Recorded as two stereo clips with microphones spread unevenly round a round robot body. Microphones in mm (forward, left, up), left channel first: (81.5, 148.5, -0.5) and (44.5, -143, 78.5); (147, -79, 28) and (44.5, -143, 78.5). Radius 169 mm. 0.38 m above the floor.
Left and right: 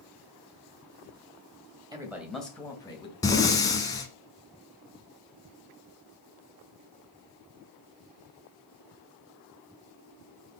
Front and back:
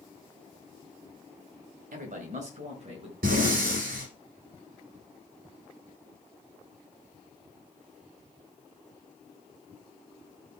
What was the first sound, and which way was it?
A man speaking, 175° left.